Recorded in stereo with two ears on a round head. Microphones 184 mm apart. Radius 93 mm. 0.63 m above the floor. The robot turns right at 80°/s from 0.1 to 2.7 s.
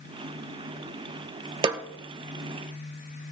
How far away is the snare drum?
About 0.5 m.